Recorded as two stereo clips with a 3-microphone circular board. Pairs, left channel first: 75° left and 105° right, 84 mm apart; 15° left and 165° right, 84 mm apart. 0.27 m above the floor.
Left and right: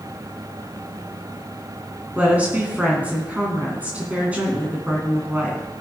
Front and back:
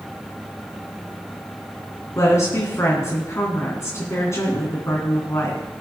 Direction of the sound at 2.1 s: 35° right.